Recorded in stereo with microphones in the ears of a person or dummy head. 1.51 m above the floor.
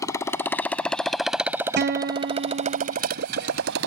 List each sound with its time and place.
0.0 s a motorcycle: 20° left (ahead or behind); by 3.9 s 65° right (ahead or behind)
1.8 s a guitar: 50° right (ahead or behind)